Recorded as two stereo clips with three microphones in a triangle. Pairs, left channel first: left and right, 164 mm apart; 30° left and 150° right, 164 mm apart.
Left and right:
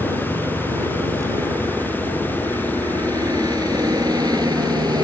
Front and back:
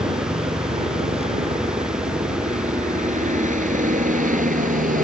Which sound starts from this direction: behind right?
A helicopter, at 0.0 s.